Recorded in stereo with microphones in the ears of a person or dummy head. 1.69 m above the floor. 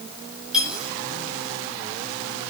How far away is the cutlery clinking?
About 6.5 m.